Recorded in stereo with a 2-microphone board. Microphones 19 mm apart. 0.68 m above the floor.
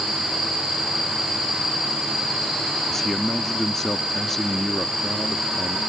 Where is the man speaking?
10° left (ahead or behind).